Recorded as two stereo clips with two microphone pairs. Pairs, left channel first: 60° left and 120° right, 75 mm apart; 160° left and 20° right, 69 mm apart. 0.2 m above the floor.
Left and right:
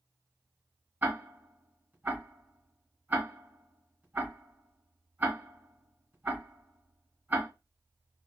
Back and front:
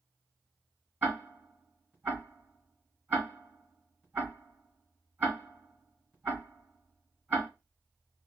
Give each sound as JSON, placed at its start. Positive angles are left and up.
{"t": 1.0, "sound": "ticking", "azimuth_deg": -75, "distance_m": 1.5}